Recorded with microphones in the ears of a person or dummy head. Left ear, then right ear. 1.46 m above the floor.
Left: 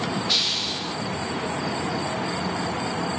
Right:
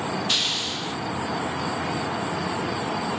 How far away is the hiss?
About 1.2 m.